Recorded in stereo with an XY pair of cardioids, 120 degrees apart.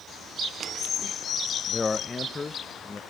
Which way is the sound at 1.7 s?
20° left.